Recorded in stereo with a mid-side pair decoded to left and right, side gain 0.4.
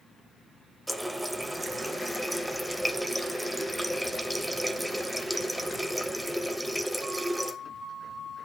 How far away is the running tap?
About 1.1 m.